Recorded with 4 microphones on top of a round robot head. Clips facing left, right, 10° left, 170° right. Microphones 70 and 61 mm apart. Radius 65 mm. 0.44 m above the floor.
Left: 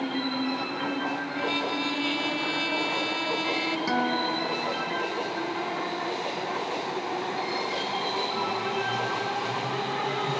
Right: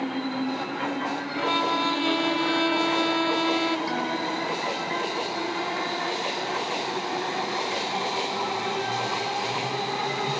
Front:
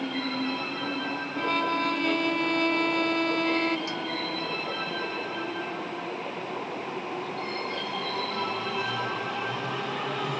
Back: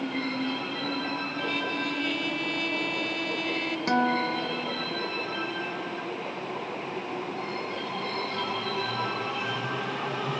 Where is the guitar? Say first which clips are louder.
Left 1 dB, back 7 dB; 160° left.